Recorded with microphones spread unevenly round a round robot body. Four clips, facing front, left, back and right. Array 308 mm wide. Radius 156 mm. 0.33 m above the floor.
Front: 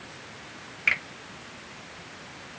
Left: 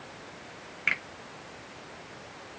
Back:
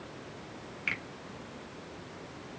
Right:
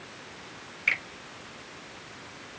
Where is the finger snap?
25° left, 5.5 m.